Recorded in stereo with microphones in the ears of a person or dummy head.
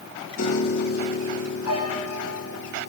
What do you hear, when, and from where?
0.4 s a piano: 75° left (ahead or behind), 1.7 m